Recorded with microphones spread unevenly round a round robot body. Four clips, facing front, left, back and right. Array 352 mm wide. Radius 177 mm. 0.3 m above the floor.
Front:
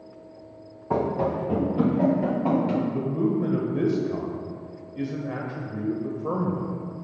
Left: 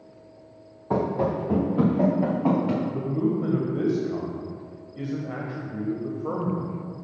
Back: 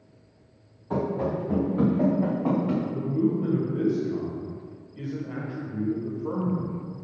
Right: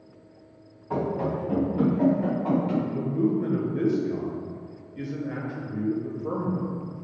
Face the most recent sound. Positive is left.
turn(degrees=10)